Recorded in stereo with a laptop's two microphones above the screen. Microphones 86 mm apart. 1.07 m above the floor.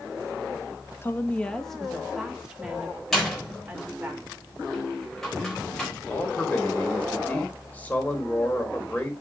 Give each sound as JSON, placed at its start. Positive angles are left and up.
{"t": 1.0, "sound": "a woman speaking", "side_deg": 30, "distance_m": 1.3}
{"t": 3.1, "sound": "a door slam", "side_deg": 5, "distance_m": 4.0}
{"t": 6.1, "sound": "a man speaking", "side_deg": 20, "distance_m": 3.5}